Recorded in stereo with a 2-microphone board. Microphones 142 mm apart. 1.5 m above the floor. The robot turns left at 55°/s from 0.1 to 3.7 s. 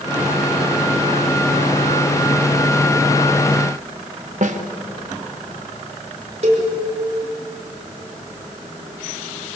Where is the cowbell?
50° right (ahead or behind), 5 m.